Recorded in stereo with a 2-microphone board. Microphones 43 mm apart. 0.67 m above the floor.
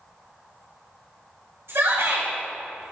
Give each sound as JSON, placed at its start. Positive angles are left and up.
{"t": 1.7, "sound": "a shout", "side_deg": -75, "distance_m": 3.5}